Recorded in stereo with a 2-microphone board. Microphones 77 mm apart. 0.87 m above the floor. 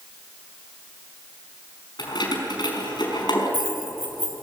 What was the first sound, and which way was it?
Keys jangling, 70° left (ahead or behind).